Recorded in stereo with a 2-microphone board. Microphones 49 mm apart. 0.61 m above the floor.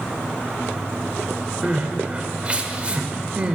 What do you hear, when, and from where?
1.6 s crying: 30° right (ahead or behind), 1.3 m